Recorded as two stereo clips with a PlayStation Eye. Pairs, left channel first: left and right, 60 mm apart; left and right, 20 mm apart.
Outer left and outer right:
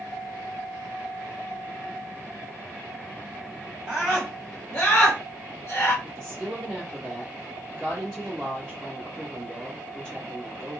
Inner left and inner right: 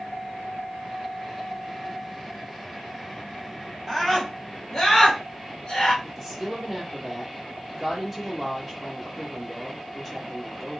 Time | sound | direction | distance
3.9 | a scream | 10° right (ahead or behind) | 1.6 m
6.0 | a woman speaking | 5° left (ahead or behind) | 1.1 m